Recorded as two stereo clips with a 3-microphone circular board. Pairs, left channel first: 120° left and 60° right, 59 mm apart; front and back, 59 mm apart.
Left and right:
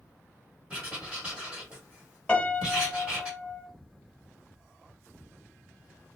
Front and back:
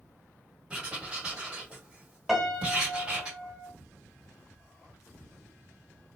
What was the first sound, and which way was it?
Writing, 125° right.